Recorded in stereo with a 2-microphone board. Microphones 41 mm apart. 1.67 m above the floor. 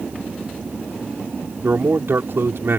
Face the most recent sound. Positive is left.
turn(degrees=-70)  # may be behind; listen again after turning